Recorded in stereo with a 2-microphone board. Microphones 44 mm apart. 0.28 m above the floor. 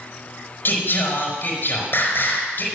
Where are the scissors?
I don't hear scissors.